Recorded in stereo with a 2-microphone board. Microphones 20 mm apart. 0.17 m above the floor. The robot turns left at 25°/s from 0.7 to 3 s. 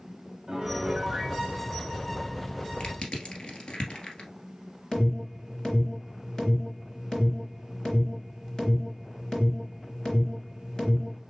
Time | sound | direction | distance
0.5 | a piano | 30° right (ahead or behind) | 1.1 m
2.8 | crushing | 50° left (ahead or behind) | 1.6 m
4.9 | an alarm | 35° left (ahead or behind) | 3.5 m